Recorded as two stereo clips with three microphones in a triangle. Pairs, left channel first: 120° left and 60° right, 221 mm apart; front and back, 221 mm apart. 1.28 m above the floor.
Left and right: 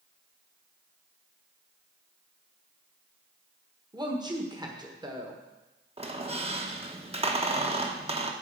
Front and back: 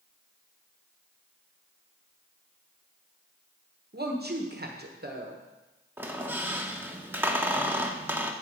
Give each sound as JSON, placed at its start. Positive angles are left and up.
{"t": 3.9, "sound": "a woman speaking", "azimuth_deg": -130, "distance_m": 1.2}
{"t": 6.0, "sound": "a squeak", "azimuth_deg": -105, "distance_m": 0.9}